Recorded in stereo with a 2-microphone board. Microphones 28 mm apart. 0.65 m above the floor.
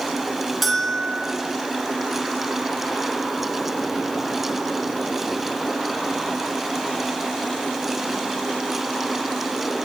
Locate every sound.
0.6 s a bell: centre (ahead or behind), 4.5 m